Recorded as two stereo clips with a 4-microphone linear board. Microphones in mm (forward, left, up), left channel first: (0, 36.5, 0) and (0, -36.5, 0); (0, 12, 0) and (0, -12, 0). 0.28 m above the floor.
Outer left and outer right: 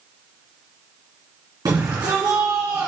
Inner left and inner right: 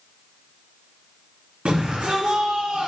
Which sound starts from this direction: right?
A shout, at 1.6 s.